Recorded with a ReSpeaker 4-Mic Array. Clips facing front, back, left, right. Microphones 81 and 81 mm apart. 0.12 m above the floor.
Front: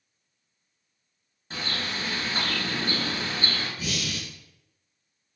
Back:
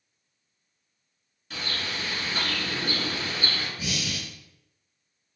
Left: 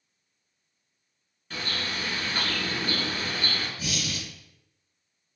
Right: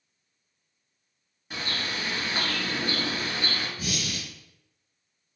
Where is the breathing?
110° right, 1.2 m.